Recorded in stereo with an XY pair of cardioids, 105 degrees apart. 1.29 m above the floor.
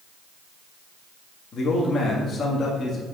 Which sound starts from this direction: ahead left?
A man speaking, at 1.5 s.